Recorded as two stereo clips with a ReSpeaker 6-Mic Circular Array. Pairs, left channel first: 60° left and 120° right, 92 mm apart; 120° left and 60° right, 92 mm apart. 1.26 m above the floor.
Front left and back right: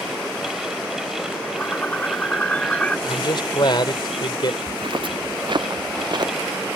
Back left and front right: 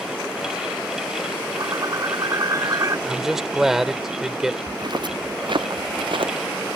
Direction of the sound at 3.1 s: 25° left.